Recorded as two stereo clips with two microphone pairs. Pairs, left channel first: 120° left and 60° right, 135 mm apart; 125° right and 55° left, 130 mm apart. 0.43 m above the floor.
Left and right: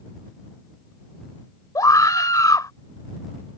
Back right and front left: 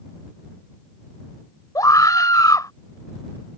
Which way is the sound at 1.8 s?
Straight behind.